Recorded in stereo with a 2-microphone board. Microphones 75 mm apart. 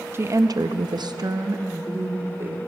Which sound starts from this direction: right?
A woman speaking, at 0.1 s.